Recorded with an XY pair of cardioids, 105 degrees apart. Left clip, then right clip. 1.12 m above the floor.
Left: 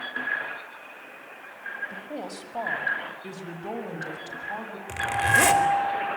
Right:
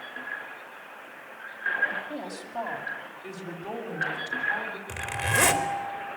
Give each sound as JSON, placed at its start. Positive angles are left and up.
{"t": 1.9, "sound": "a woman speaking", "azimuth_deg": 35, "distance_m": 5.5}
{"t": 4.9, "sound": "a zipper", "azimuth_deg": 10, "distance_m": 3.5}